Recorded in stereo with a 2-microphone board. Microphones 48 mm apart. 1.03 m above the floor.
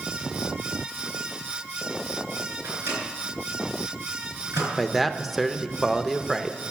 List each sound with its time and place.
2.6 s a microwave: 60° right (ahead or behind), 5 m
4.8 s a man speaking: centre (ahead or behind), 0.6 m